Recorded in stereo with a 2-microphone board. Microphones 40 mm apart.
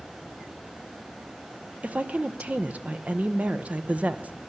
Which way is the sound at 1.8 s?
35° right (ahead or behind).